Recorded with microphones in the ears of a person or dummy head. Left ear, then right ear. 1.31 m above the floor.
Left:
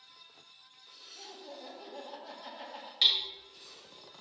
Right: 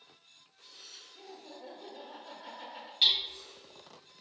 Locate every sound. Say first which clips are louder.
1.1 s laughter: left 2 dB; 85° left, 1.8 m
3.0 s hammering: even; 40° left (ahead or behind), 1.4 m